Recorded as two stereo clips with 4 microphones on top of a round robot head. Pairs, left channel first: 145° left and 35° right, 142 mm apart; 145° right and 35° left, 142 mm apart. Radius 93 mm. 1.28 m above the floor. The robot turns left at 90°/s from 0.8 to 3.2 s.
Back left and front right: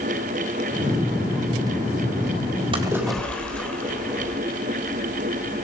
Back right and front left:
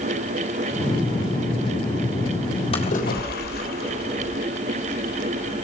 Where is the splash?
95° right, 3.5 m; by 4.4 s 135° right, 3.5 m.